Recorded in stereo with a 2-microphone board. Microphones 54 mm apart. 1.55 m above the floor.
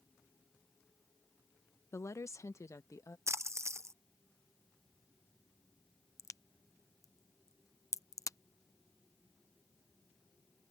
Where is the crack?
70° left (ahead or behind).